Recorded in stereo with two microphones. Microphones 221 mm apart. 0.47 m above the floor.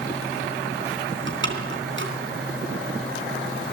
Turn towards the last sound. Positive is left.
turn(degrees=-60)  # may be behind; listen again after turning